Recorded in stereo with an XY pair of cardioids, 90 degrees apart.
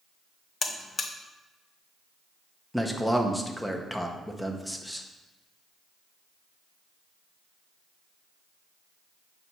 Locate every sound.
0.6 s a buzzer: 45° left, 0.7 m
2.7 s a man speaking: 5° left, 1.1 m